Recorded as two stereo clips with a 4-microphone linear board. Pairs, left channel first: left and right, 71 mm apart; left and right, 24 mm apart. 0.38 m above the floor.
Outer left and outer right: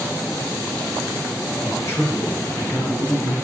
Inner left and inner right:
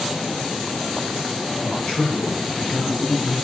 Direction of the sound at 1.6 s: 40° left (ahead or behind).